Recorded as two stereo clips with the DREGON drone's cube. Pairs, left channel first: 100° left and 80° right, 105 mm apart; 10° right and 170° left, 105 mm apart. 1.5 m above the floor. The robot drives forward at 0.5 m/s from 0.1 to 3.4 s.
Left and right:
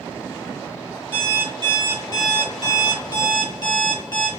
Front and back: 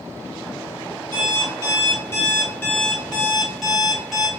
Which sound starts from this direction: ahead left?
An alarm clock, at 1.1 s.